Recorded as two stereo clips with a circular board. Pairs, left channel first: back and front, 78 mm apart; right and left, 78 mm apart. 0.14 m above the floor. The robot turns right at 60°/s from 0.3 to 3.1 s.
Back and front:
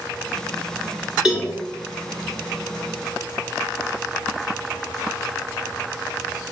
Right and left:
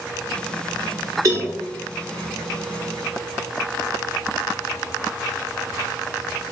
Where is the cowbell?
80° left, 1.3 m; by 1.5 s 95° left, 1.3 m.